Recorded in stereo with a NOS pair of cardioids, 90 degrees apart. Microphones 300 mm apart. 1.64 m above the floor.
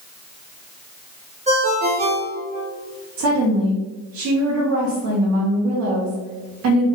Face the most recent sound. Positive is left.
turn(degrees=-60)